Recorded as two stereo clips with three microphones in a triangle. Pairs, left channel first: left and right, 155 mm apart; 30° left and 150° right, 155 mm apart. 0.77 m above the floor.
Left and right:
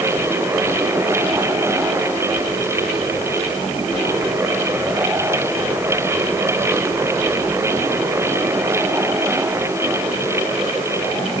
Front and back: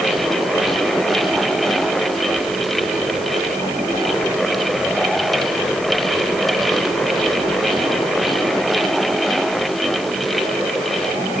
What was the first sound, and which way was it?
Only background noise.